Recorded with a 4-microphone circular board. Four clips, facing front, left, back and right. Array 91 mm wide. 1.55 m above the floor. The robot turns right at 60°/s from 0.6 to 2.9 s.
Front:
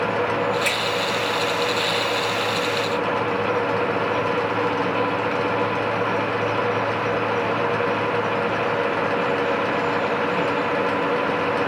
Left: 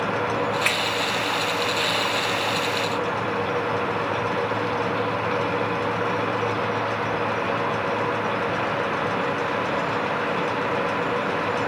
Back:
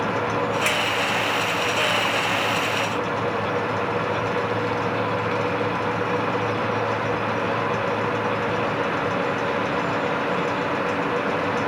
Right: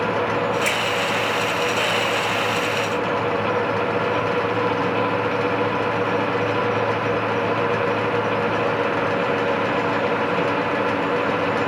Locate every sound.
0.7 s a finger snap: 95° left, 1.2 m; by 0.8 s 105° left, 1.2 m